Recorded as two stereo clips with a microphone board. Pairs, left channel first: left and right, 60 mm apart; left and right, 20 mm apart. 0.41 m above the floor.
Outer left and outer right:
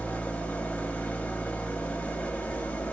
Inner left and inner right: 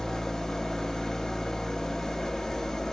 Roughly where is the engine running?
Left.